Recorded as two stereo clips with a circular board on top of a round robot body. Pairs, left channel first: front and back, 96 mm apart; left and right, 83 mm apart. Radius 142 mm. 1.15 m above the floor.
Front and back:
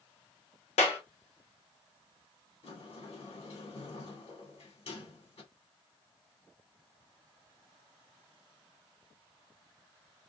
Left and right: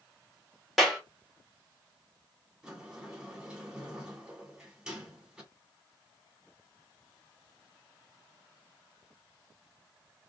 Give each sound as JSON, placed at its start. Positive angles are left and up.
{"t": 0.8, "sound": "a clap", "azimuth_deg": 0, "distance_m": 1.3}
{"t": 2.6, "sound": "a sliding door", "azimuth_deg": -10, "distance_m": 1.7}